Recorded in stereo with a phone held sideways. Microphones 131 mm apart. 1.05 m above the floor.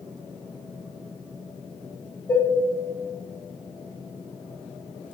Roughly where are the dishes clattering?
Left.